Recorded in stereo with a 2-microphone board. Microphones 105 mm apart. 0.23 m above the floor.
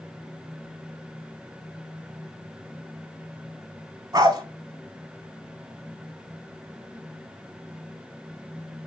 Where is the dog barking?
40° right (ahead or behind), 0.7 m.